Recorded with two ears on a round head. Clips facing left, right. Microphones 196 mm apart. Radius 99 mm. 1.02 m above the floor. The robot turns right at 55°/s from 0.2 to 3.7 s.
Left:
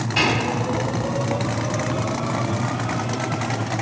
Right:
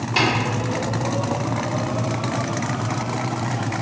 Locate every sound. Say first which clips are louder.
0.2 s tapping: right 1 dB; 50° right (ahead or behind), 1.9 m